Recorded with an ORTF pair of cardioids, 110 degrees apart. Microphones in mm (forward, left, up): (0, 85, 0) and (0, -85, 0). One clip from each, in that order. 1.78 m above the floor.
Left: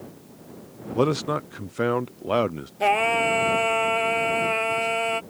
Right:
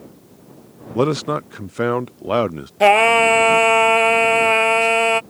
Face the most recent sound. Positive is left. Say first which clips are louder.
# right 9 dB
turn(degrees=-50)